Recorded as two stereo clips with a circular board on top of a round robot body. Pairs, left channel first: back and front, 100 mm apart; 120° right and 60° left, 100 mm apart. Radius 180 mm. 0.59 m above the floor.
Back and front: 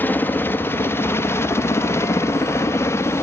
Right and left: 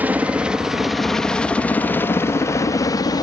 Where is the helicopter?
125° left; by 3.2 s 130° right.